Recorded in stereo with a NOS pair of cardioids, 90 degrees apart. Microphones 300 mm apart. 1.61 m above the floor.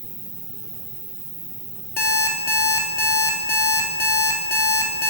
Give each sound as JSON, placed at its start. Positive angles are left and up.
{"t": 0.0, "sound": "an insect", "azimuth_deg": -15, "distance_m": 1.1}
{"t": 2.0, "sound": "an alarm clock", "azimuth_deg": 35, "distance_m": 2.5}